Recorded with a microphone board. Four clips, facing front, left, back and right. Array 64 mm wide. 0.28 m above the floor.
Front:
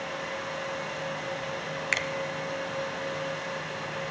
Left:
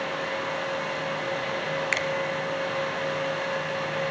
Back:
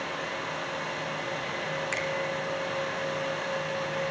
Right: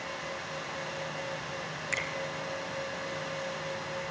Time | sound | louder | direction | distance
1.9 | a finger snap | left 4 dB, front 5 dB | 50° left | 1.1 m